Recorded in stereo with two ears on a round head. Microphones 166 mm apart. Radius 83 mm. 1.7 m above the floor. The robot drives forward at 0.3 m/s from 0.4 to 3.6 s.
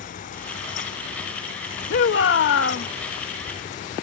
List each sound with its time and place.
1.9 s a shout: 70° left (ahead or behind); by 2.9 s 75° left (ahead or behind)